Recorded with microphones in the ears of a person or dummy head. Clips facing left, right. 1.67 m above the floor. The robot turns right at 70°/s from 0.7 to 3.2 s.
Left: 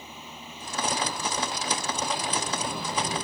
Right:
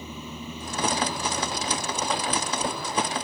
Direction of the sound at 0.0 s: 90° right.